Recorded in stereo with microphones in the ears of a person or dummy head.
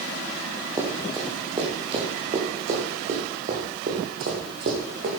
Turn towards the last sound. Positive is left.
turn(degrees=-55)  # may be behind; listen again after turning